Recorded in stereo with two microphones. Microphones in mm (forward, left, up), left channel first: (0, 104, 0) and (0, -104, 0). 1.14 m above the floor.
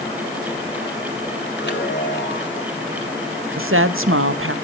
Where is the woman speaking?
70° right (ahead or behind), 1.0 m.